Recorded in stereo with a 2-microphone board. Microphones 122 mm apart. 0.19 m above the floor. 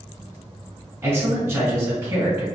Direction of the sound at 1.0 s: 20° right (ahead or behind).